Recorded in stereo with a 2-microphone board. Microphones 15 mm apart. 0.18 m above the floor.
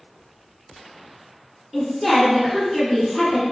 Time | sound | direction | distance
1.7 | a woman speaking | 15° right (ahead or behind) | 1.8 m